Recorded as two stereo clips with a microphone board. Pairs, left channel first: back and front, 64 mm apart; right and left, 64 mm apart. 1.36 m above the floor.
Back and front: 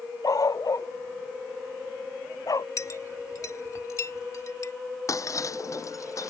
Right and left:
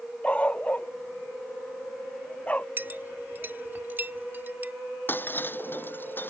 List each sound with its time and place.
0.2 s a dog barking: 160° right
2.8 s a clink: 145° left
5.1 s breaking glass: 150° right